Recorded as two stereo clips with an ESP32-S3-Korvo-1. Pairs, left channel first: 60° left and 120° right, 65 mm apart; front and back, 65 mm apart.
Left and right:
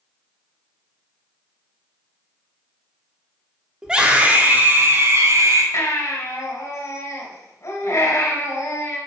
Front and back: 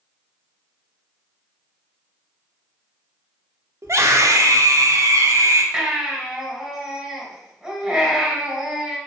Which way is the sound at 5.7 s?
95° left.